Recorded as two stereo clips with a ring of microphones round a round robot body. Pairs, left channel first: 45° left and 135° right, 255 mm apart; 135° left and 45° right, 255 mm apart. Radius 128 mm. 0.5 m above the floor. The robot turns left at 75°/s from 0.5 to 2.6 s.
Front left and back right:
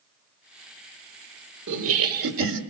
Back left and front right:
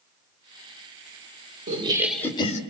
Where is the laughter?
100° right, 1.9 m; by 2.6 s 170° right, 1.9 m.